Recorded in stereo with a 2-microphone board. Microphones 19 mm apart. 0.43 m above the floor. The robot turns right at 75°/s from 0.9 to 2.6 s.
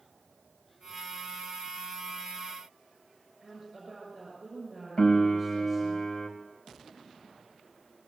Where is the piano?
40° left (ahead or behind), 3 m.